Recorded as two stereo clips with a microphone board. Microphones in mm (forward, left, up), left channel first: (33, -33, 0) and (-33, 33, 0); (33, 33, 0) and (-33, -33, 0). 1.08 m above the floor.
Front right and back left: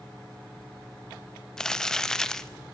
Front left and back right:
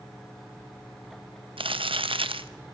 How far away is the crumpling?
About 0.8 m.